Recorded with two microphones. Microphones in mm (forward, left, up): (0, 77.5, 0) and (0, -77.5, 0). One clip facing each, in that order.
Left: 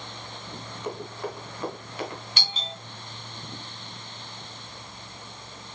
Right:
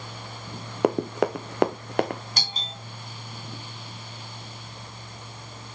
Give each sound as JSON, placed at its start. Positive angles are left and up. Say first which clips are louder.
{"t": 0.8, "sound": "running footsteps", "louder": "right 12 dB", "side_deg": -70, "distance_m": 1.0}
{"t": 2.4, "sound": "a doorbell", "louder": "even", "side_deg": -40, "distance_m": 2.5}